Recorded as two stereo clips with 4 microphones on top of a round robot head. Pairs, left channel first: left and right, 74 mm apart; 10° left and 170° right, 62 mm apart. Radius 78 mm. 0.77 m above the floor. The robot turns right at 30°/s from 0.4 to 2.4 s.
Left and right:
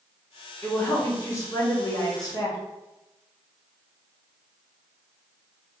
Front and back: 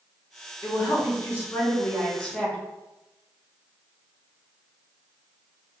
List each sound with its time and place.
0.6 s a woman speaking: 35° left, 1.6 m; by 2.6 s 90° left, 1.6 m